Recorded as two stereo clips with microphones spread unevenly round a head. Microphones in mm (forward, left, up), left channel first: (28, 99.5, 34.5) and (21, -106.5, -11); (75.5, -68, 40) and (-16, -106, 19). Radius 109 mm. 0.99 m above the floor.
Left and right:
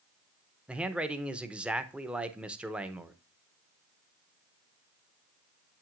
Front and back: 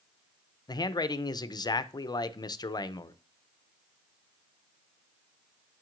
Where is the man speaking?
25° right, 0.6 m.